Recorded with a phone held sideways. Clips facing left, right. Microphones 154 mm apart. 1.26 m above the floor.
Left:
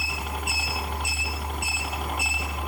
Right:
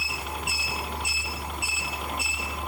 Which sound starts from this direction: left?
A helicopter, at 0.0 s.